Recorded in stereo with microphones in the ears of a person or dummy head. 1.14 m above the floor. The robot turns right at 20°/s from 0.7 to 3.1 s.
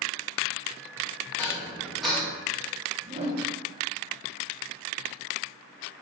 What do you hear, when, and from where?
1.4 s dishes clattering: 15° left (ahead or behind), 0.6 m; by 2.3 s 5° right (ahead or behind), 0.6 m
3.0 s a whoosh: 35° right (ahead or behind), 0.6 m